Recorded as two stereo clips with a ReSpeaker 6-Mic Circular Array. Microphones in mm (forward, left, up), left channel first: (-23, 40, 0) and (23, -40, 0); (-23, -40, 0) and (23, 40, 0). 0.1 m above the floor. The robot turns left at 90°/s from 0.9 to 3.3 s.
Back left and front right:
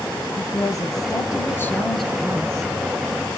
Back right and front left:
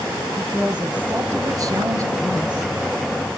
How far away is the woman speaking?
About 1.4 m.